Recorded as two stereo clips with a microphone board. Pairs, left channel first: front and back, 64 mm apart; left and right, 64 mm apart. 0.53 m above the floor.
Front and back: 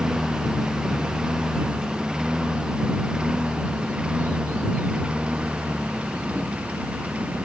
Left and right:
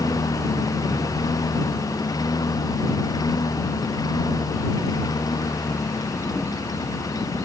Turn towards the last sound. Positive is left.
turn(degrees=110)